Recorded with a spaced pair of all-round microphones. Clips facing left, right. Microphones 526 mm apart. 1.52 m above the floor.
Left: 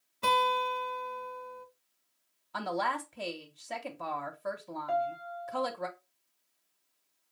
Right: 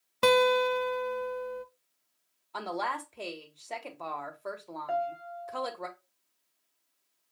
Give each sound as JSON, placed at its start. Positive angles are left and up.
{"t": 0.2, "sound": "a guitar", "side_deg": -85, "distance_m": 0.8}
{"t": 2.5, "sound": "a woman speaking", "side_deg": 35, "distance_m": 1.2}
{"t": 4.9, "sound": "a piano", "side_deg": 30, "distance_m": 0.5}